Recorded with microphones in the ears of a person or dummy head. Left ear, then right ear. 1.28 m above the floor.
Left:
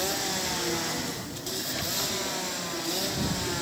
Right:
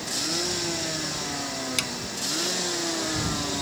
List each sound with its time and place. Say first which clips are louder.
1.8 s a drawer: right 10 dB; 85° right